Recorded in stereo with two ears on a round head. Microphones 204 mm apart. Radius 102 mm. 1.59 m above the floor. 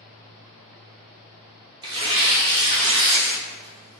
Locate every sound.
1.8 s tearing paper: 20° right (ahead or behind), 0.7 m